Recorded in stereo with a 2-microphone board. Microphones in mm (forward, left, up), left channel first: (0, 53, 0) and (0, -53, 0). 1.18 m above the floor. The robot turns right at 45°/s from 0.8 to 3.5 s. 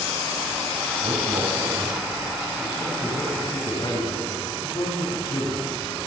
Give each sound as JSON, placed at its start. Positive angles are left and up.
{"t": 1.0, "sound": "a man speaking", "azimuth_deg": -75, "distance_m": 6.0}